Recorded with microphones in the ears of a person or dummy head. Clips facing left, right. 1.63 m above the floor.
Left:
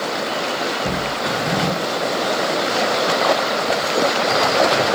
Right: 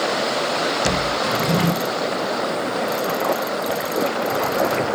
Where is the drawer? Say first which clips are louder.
Even; 80° right, 4 m.